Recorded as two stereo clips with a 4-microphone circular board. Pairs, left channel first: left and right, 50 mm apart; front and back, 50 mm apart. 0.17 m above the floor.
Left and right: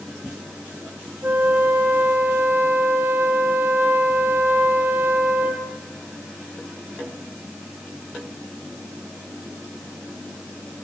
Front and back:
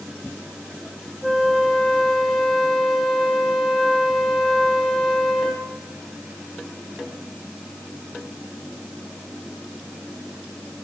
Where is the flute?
95° right, 2.5 m.